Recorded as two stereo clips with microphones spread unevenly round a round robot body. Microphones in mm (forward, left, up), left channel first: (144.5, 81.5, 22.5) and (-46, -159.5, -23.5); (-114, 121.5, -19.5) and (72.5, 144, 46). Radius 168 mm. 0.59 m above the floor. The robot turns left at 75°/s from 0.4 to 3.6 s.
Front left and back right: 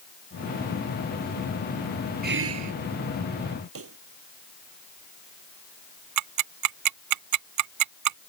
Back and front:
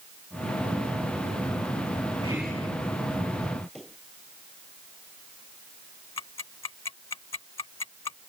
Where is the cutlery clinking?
I don't hear cutlery clinking.